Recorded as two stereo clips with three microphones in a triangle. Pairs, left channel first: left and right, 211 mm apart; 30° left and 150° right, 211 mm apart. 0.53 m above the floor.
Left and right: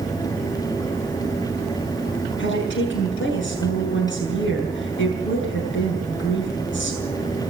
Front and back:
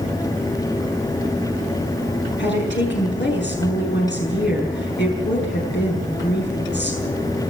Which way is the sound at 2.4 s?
65° left.